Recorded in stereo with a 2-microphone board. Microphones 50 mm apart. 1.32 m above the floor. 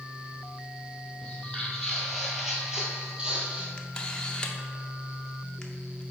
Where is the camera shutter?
15° left (ahead or behind), 0.6 m.